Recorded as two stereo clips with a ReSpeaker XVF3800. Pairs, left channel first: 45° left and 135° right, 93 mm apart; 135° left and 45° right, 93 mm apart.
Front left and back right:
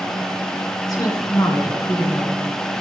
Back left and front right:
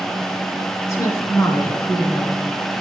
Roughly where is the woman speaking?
Left.